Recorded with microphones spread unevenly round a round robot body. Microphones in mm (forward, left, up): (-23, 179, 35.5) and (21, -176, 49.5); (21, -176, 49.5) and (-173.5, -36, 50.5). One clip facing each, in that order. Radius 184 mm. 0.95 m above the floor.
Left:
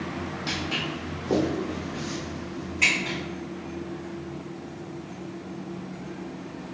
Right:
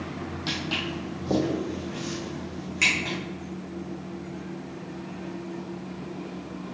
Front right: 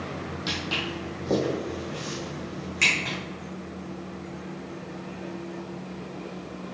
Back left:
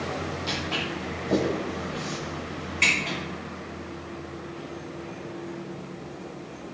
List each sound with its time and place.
0.5 s footsteps: 20° right, 1.7 m; by 3.1 s 35° right, 3.5 m